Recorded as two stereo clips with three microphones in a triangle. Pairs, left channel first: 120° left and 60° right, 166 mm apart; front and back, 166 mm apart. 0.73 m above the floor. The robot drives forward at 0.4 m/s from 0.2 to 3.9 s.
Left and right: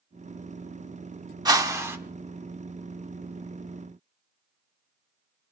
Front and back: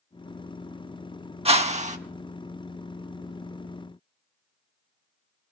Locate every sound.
1.4 s a whoosh: 125° right, 0.9 m; by 2.0 s 135° right, 1.0 m